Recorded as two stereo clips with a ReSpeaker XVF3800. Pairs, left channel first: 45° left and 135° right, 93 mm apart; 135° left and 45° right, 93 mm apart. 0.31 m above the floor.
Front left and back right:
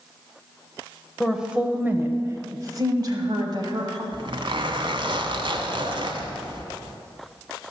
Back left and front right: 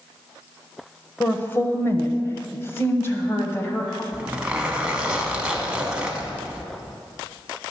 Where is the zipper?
125° right, 1.1 m.